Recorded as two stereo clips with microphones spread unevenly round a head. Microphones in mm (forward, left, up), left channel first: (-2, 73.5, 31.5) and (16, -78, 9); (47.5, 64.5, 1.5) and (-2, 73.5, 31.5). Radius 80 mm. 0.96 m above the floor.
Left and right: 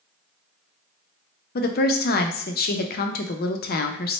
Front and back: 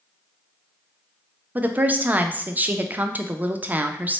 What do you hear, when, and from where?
1.6 s a woman speaking: 90° left, 0.5 m